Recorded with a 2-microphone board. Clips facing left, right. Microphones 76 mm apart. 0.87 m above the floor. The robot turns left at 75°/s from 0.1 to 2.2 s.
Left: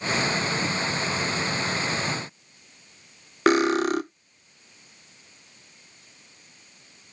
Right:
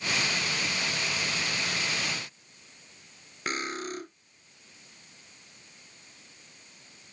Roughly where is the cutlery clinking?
Left.